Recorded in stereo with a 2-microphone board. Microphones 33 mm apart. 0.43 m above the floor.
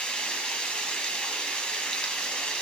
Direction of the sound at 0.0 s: 30° left (ahead or behind).